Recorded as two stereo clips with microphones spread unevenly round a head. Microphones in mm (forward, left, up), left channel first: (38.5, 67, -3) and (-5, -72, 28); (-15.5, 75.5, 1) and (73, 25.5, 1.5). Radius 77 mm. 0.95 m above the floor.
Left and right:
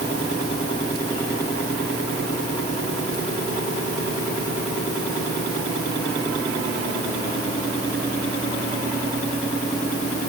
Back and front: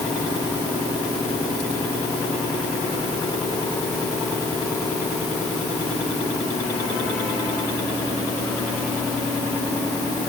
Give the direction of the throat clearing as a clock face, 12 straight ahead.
No throat clearing in this recording.